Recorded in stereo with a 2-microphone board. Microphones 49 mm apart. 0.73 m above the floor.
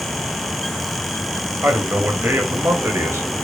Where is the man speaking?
60° right (ahead or behind), 4 m; by 3.3 s 70° right (ahead or behind), 3.5 m.